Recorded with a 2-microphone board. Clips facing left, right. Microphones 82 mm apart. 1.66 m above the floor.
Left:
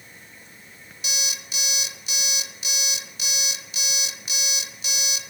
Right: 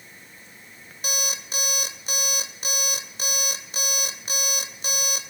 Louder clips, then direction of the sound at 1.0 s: Right 3 dB; 45° right (ahead or behind).